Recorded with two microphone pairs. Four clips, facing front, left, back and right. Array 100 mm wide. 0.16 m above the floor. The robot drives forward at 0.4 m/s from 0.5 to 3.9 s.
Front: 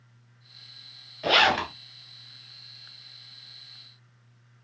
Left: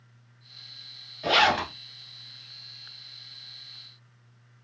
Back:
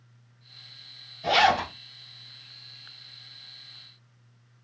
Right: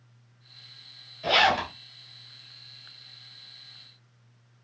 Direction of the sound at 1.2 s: 25° left.